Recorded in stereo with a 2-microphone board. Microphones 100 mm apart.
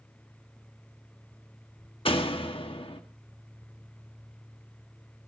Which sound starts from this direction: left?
A door slam, at 2.0 s.